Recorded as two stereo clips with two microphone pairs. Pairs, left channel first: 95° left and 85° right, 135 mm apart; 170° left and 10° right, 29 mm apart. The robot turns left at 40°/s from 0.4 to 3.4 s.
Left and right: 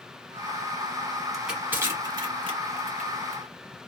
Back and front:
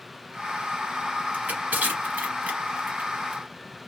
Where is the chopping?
I don't hear chopping.